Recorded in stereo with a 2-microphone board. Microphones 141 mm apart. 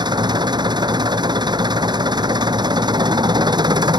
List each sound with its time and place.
0.0 s an engine running: 30° right (ahead or behind)